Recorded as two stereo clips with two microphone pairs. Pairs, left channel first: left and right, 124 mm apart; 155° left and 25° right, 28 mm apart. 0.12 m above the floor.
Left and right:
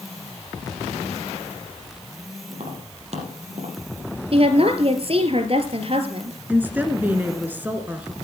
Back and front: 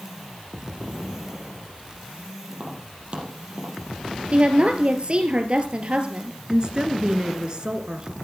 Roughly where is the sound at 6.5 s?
Ahead right.